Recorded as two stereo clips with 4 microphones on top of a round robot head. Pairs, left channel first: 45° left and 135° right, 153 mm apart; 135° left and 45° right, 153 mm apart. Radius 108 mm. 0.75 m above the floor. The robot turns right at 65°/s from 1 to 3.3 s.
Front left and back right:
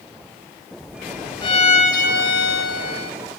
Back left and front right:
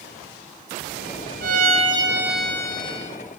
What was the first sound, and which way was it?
A violin, 15° right.